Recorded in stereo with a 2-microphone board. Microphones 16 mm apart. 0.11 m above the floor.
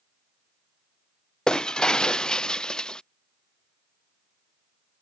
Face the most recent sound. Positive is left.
turn(degrees=65)  # may be behind; listen again after turning